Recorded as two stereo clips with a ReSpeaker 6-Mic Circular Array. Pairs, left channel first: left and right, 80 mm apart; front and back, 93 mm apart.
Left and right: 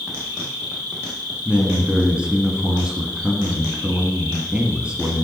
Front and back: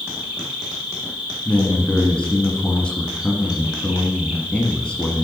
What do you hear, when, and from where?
0.0 s an insect: 105° right, 1.6 m
1.4 s a man speaking: 50° right, 1.0 m